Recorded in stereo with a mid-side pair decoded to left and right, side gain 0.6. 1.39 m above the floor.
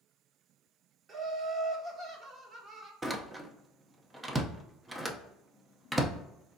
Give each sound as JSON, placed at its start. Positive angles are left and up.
{"t": 1.1, "sound": "laughter", "azimuth_deg": -35, "distance_m": 1.4}
{"t": 3.0, "sound": "a door slam", "azimuth_deg": -15, "distance_m": 0.7}